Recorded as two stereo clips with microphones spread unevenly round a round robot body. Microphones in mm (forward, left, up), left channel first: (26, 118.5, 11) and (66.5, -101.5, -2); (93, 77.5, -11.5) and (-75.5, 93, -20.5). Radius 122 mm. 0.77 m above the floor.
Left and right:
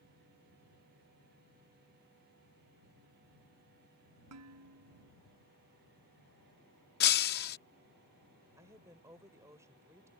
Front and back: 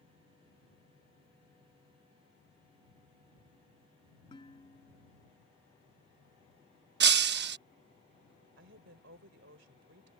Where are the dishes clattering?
75° right.